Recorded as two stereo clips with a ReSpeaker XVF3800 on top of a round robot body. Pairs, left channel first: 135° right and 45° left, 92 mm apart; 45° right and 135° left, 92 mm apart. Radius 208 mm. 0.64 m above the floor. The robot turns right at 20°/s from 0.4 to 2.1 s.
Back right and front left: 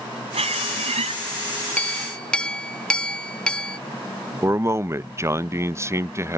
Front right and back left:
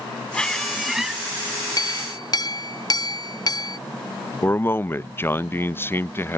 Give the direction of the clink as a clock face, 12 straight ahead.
2 o'clock.